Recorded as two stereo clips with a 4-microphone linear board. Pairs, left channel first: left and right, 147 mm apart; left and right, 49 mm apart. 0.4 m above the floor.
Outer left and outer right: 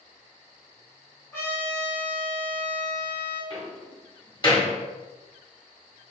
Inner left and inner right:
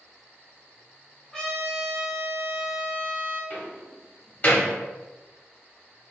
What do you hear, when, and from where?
1.3 s a trumpet: 15° left (ahead or behind), 1.3 m
3.5 s a door slam: 35° left (ahead or behind), 1.3 m